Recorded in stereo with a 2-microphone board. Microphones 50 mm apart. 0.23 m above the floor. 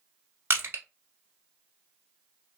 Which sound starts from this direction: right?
Crushing, at 0.5 s.